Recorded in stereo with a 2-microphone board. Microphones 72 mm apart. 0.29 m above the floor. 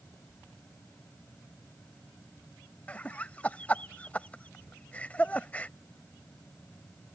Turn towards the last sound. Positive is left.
turn(degrees=20)  # may be behind; listen again after turning